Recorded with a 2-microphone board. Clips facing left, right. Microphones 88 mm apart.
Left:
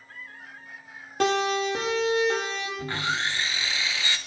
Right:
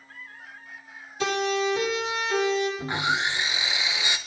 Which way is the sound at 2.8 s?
15° right (ahead or behind).